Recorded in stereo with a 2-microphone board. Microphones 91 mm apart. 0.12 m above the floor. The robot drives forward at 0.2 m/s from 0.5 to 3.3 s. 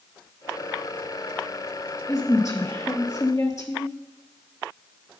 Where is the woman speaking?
35° left (ahead or behind), 3 m.